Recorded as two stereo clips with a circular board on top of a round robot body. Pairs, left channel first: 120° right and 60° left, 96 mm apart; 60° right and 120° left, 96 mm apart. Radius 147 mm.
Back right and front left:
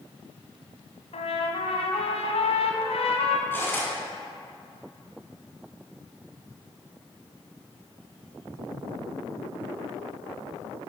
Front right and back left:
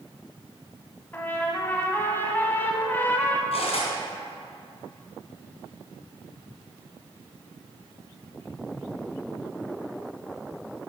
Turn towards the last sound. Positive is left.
turn(degrees=-50)